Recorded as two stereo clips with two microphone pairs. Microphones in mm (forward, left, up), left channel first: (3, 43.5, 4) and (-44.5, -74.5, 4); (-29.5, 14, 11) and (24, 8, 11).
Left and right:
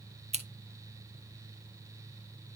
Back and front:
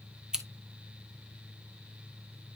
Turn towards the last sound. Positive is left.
turn(degrees=-85)